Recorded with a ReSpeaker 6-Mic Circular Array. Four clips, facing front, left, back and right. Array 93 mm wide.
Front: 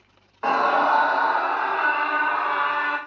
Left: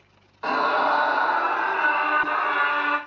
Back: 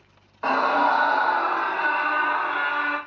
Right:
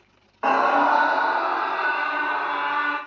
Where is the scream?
80° right, 0.9 m; by 3.0 s 90° left, 1.2 m.